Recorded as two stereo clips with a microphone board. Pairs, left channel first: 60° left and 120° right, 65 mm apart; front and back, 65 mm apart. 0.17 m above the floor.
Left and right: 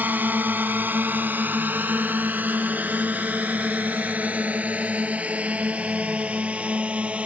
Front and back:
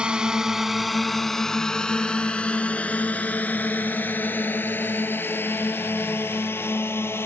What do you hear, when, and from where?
0.0 s a drone: 120° right; by 7.3 s 50° right